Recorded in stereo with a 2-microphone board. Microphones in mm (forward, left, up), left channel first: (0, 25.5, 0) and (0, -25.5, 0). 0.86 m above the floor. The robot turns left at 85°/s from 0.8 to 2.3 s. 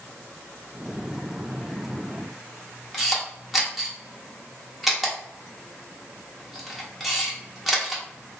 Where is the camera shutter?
5° right (ahead or behind), 0.9 m.